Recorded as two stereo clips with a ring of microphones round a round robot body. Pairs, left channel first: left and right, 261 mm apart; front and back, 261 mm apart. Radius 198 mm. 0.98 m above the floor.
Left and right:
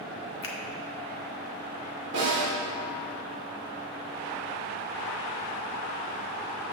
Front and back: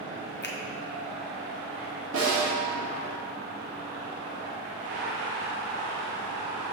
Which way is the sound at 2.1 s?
140° right.